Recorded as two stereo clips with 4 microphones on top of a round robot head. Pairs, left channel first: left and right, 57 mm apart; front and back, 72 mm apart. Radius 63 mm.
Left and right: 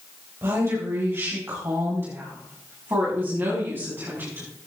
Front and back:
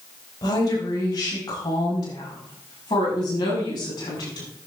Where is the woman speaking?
40° right, 4 m; by 4.5 s 30° right, 7.5 m.